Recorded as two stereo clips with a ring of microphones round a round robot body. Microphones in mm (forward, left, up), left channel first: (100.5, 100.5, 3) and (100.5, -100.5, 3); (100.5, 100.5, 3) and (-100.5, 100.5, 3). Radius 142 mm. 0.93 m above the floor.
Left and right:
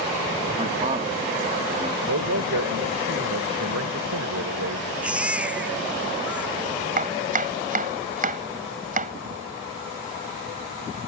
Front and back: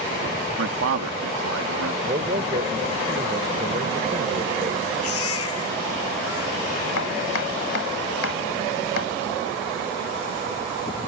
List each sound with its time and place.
0.6 s a man speaking: 155° right
2.0 s a man speaking: 115° right
5.0 s a baby crying: 5° right
7.0 s chopping: 40° right